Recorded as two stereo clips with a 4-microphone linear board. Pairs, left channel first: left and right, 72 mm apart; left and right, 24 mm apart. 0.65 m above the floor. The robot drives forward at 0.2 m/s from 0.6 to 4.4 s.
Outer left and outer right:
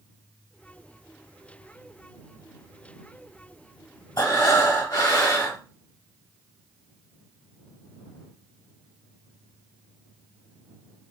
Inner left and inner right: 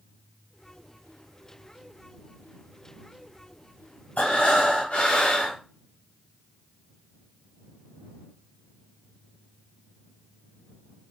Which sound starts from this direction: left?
Breathing, at 4.2 s.